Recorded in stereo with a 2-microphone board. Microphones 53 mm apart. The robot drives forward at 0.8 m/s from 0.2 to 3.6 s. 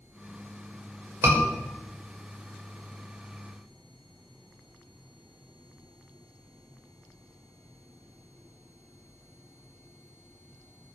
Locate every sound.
1.2 s a scream: 50° right (ahead or behind), 5.5 m